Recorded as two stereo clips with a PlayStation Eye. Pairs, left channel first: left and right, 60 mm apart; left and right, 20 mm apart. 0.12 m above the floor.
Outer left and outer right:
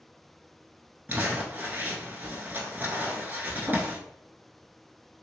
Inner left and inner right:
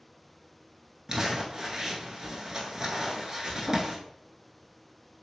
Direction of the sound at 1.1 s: 30° right (ahead or behind).